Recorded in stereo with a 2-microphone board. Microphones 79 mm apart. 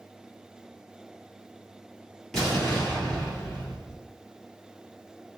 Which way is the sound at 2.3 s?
5° left (ahead or behind).